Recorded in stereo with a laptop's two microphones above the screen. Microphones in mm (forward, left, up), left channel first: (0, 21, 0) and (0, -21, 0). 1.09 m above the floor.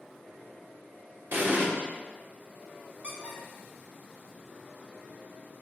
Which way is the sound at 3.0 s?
25° right (ahead or behind).